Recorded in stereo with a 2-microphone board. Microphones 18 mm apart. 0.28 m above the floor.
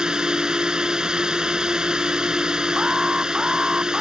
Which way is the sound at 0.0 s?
45° right (ahead or behind).